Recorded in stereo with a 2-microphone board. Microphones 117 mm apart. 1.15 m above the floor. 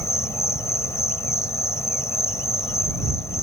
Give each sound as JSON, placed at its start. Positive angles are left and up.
{"t": 0.0, "sound": "an insect", "side_deg": 25}